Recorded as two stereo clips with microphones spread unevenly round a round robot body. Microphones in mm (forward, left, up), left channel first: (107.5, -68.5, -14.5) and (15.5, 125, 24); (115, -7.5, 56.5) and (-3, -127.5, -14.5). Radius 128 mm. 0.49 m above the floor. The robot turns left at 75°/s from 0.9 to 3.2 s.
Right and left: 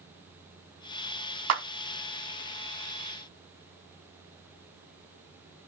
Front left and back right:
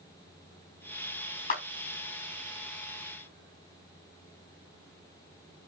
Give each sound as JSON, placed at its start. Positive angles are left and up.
{"t": 1.5, "sound": "a clap", "azimuth_deg": 110, "distance_m": 4.5}